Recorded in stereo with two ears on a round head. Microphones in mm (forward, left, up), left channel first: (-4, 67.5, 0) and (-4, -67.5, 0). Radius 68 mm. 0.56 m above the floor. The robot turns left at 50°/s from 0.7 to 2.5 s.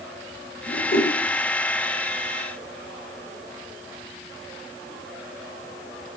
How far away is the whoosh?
About 2 m.